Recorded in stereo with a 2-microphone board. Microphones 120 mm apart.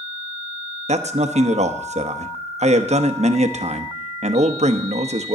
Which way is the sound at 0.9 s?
70° right (ahead or behind).